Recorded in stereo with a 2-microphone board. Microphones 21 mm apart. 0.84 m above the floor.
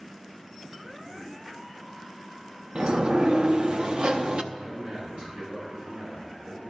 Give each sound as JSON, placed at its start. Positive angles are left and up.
{"t": 2.8, "sound": "a sliding door", "side_deg": -45, "distance_m": 0.6}
{"t": 4.5, "sound": "a man speaking", "side_deg": -80, "distance_m": 5.5}